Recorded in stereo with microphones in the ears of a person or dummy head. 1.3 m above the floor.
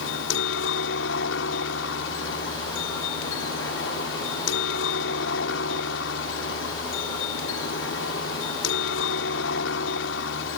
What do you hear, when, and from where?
0.0 s a helicopter: 65° left (ahead or behind)